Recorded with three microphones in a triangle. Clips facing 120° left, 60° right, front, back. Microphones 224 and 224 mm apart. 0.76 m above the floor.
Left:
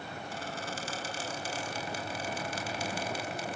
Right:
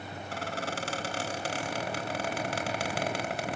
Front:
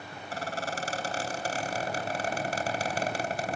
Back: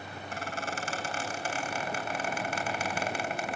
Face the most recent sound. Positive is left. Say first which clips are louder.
# right 6 dB, front 3 dB
turn(degrees=-50)